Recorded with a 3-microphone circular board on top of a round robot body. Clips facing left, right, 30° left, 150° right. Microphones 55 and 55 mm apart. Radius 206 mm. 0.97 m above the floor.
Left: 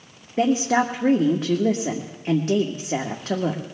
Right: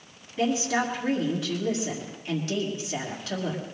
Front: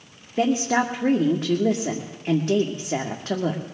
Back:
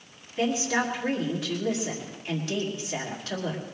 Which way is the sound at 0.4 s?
70° left.